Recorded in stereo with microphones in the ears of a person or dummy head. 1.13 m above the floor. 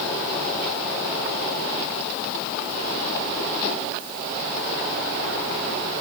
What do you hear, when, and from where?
Only background noise.